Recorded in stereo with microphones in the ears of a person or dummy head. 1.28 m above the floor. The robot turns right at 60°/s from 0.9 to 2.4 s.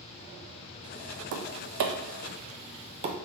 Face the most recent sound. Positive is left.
turn(degrees=-35)  # may be behind; listen again after turning